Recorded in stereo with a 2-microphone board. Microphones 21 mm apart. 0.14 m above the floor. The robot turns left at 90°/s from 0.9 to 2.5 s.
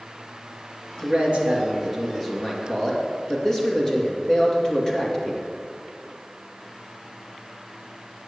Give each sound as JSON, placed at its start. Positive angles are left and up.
{"t": 1.0, "sound": "a man speaking", "azimuth_deg": -85, "distance_m": 3.0}